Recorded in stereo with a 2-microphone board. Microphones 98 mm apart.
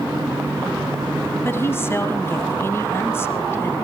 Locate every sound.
1.4 s a woman speaking: 25° left (ahead or behind), 1.2 m